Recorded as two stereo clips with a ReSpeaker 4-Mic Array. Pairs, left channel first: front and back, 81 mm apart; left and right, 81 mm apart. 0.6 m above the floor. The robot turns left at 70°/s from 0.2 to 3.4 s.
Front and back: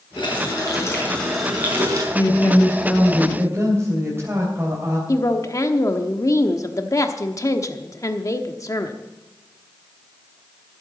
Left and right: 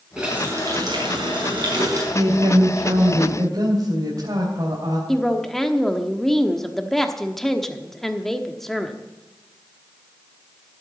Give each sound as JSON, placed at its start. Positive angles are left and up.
{"t": 0.2, "sound": "a running tap", "azimuth_deg": -10, "distance_m": 4.5}
{"t": 2.1, "sound": "a woman speaking", "azimuth_deg": -40, "distance_m": 3.0}
{"t": 5.1, "sound": "a woman speaking", "azimuth_deg": 5, "distance_m": 1.1}